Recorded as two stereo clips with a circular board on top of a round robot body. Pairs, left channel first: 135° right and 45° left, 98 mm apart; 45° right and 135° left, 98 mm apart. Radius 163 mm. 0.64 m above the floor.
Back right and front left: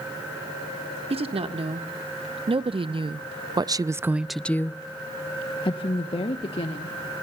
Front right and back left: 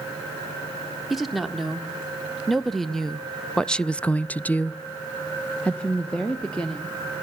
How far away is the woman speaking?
About 1.8 m.